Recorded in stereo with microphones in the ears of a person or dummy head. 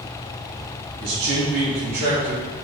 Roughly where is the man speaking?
Right.